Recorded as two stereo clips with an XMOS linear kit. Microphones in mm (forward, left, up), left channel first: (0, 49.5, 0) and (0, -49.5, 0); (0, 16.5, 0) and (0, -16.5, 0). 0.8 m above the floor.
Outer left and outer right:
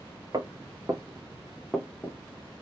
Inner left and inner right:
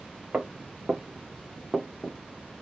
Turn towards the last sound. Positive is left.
turn(degrees=20)  # may be behind; listen again after turning